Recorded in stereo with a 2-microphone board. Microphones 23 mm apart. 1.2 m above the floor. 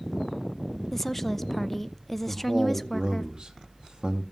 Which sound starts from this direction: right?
A man speaking, at 2.3 s.